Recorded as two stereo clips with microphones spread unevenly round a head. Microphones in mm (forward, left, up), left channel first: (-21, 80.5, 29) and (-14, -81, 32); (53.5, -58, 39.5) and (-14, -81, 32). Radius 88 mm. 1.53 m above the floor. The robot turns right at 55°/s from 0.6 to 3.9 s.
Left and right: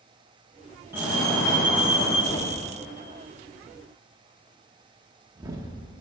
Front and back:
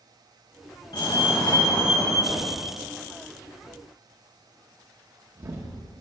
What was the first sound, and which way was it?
A fire alarm, 10° right.